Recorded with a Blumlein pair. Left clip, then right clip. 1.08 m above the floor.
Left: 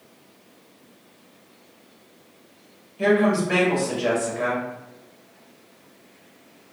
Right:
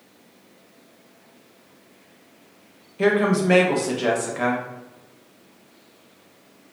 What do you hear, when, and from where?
3.0 s a woman speaking: 70° right, 0.9 m